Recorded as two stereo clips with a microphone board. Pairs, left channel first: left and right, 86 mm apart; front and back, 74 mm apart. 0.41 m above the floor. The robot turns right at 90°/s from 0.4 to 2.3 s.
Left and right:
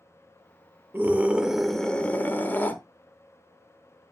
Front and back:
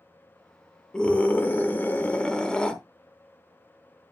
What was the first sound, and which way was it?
A scream, 60° right.